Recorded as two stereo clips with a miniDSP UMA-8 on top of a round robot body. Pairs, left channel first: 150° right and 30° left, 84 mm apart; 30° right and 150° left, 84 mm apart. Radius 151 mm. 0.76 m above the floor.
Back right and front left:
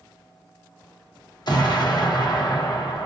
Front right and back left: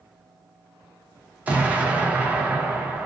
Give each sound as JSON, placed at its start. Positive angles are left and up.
{"t": 1.5, "sound": "an explosion", "azimuth_deg": -140, "distance_m": 0.9}